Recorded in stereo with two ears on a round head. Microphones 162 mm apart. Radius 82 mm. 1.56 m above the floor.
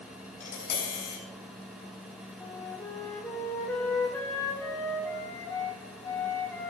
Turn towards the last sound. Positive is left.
turn(degrees=15)  # may be behind; listen again after turning